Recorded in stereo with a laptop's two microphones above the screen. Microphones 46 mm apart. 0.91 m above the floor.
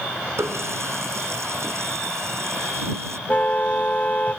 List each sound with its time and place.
0.4 s a running tap: 85° right
3.3 s a car horn: 35° left (ahead or behind)